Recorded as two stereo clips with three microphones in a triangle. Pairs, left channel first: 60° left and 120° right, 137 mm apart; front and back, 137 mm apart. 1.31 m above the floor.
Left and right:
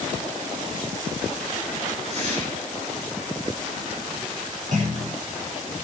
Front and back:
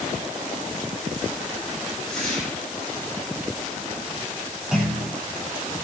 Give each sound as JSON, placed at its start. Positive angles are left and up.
{"t": 2.1, "sound": "a whoosh", "azimuth_deg": -85, "distance_m": 8.0}
{"t": 4.7, "sound": "a clunk", "azimuth_deg": -95, "distance_m": 9.5}